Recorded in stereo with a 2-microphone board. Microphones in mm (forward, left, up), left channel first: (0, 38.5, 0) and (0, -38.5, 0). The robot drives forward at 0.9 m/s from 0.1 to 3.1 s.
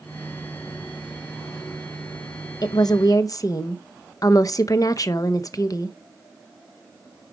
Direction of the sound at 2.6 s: 55° left (ahead or behind).